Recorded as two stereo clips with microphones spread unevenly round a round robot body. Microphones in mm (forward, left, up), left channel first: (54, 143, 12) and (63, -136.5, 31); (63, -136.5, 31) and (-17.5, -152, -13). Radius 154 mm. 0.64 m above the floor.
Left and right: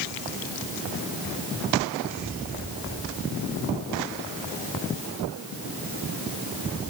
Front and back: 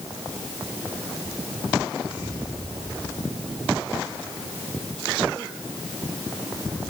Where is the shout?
No shout in this recording.